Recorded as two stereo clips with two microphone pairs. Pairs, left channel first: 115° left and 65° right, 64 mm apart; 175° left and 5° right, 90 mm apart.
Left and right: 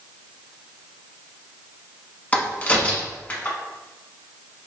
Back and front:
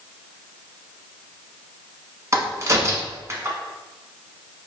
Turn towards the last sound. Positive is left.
turn(degrees=50)